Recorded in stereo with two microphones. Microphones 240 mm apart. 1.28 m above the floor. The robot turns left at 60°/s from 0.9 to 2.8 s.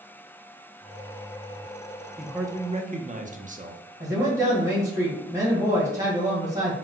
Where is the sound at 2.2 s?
5° left, 0.6 m; by 3.8 s 35° right, 0.6 m.